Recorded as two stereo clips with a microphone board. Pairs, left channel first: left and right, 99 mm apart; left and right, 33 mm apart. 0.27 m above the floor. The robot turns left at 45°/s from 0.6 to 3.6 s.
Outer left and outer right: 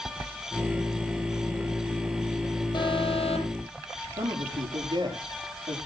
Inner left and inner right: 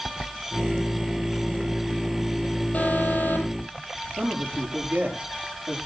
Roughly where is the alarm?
Behind left.